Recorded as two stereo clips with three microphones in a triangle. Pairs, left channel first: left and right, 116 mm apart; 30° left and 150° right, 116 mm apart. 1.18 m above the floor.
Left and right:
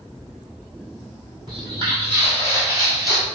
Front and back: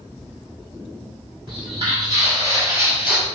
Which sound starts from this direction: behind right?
Footsteps, at 1.5 s.